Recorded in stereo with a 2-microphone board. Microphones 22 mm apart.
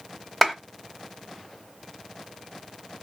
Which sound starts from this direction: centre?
A clap, at 0.4 s.